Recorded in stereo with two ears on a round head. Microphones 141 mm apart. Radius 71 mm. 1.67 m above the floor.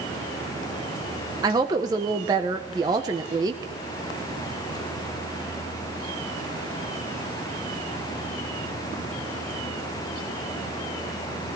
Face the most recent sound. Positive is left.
turn(degrees=-25)  # may be behind; listen again after turning